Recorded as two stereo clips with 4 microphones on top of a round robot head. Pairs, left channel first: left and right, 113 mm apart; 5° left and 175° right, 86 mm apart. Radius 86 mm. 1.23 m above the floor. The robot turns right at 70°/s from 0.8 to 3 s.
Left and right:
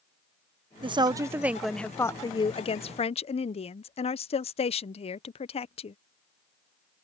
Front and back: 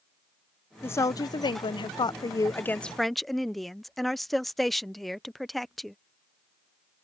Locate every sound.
0.8 s a woman speaking: 60° right; by 6.0 s 90° left